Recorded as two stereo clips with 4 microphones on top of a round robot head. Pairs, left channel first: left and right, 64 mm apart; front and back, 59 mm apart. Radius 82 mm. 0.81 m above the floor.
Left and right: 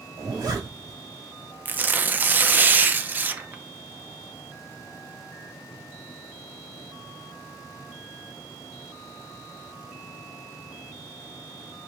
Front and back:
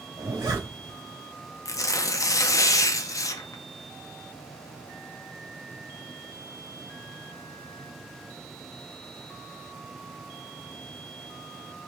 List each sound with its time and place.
0.2 s a zipper: 135° right, 3 m
1.6 s tearing paper: 30° right, 0.7 m